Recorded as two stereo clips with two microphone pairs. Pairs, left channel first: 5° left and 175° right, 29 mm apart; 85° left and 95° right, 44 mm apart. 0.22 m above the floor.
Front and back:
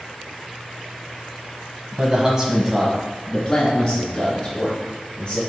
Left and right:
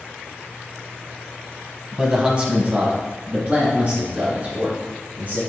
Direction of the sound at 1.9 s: 165° right.